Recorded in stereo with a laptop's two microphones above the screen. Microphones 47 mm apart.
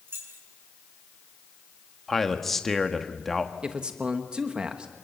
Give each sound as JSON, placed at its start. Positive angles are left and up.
{"t": 0.1, "sound": "keys jangling", "side_deg": -50, "distance_m": 8.5}
{"t": 2.1, "sound": "a man speaking", "side_deg": 5, "distance_m": 1.2}
{"t": 3.6, "sound": "a man speaking", "side_deg": -20, "distance_m": 1.2}